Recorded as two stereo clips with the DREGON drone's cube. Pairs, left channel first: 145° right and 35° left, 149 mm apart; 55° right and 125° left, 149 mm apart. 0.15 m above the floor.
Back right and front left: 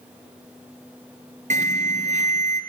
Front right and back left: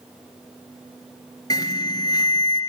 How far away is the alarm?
About 2.5 m.